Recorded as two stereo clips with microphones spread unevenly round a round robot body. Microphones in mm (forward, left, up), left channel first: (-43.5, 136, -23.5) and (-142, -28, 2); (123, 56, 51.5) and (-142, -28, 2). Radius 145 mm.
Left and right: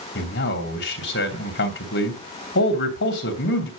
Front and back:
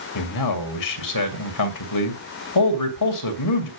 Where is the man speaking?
35° left, 2.5 m.